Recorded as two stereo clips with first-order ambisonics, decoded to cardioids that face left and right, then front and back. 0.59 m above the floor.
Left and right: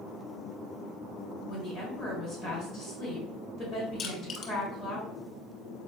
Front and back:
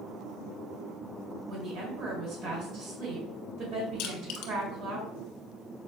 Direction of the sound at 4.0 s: 30° left.